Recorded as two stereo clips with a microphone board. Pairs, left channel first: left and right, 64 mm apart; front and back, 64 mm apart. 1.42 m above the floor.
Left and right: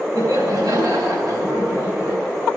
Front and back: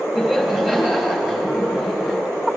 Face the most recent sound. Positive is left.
turn(degrees=-100)